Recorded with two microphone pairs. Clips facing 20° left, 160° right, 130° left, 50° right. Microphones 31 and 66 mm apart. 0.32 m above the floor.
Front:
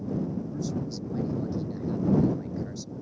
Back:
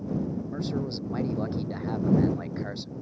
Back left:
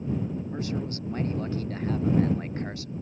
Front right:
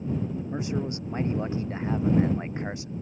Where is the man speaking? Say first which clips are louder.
Back 1 dB, front right 2 dB; 120° right.